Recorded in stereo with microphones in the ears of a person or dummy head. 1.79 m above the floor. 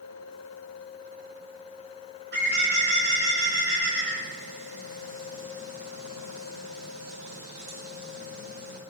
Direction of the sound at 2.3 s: 60° right (ahead or behind).